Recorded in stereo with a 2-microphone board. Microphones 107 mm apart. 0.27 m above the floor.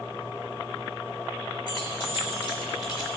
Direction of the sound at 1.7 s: 45° left (ahead or behind).